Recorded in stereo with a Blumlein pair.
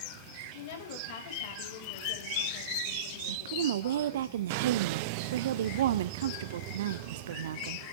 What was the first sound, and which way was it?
A woman speaking, 50° left.